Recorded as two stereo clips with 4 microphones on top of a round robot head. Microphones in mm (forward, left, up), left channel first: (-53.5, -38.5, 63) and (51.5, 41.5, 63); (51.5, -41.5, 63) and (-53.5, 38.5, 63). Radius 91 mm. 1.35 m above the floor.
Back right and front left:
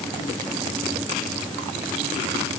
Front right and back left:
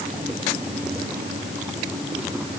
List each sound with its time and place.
Only background noise.